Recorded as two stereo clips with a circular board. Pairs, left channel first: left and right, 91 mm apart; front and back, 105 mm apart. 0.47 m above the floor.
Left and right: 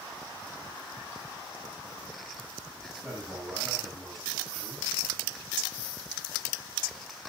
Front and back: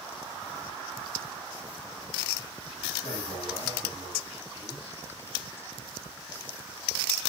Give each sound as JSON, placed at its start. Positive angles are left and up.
{"t": 3.0, "sound": "a man speaking", "azimuth_deg": -20, "distance_m": 5.0}